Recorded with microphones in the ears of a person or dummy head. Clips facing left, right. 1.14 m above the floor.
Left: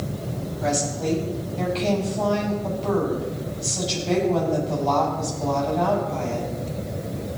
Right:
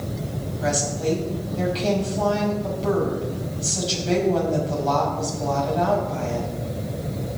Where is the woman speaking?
5° right (ahead or behind), 5.5 m.